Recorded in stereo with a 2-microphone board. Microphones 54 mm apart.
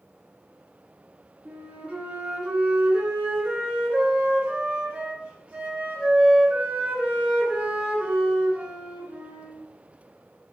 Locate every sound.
1.4 s a flute: 25° right (ahead or behind), 2.5 m